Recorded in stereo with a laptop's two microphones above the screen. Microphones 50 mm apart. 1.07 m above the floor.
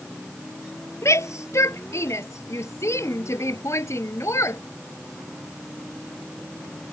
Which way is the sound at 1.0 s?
75° left (ahead or behind).